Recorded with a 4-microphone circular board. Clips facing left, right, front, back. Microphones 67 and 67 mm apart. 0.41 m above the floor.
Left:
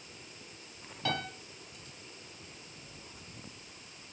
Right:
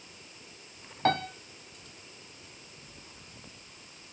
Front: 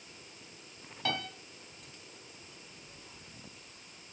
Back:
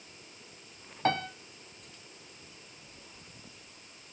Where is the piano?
130° right, 1.9 m.